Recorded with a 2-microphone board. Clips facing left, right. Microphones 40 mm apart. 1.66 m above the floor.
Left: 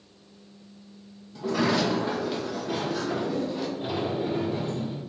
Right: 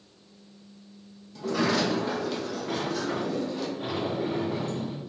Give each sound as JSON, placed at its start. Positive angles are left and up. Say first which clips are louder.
{"t": 1.4, "sound": "a sliding door", "louder": "left 1 dB", "side_deg": 10, "distance_m": 0.8}
{"t": 2.7, "sound": "a sliding door", "louder": "left 1 dB", "side_deg": -75, "distance_m": 1.6}